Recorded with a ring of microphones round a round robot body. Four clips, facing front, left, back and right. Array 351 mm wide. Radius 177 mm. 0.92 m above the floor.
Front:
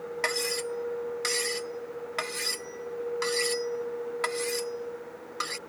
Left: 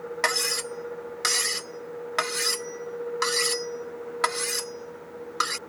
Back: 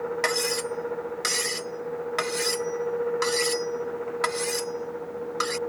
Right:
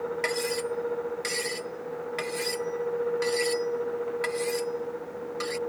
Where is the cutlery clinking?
115° left.